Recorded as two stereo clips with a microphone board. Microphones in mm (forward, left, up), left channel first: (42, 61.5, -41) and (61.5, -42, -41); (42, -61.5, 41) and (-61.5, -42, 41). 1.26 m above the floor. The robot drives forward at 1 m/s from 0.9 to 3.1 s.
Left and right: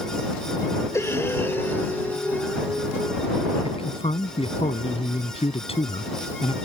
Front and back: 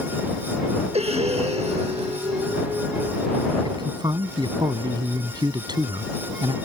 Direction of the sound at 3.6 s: 125° left.